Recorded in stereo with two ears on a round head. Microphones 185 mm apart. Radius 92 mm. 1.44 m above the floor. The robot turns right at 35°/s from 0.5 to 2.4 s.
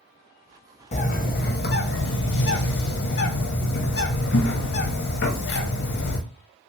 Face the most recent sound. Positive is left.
turn(degrees=95)